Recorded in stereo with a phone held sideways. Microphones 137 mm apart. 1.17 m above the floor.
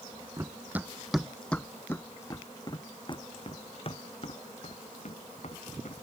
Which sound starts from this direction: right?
Running footsteps, at 0.4 s.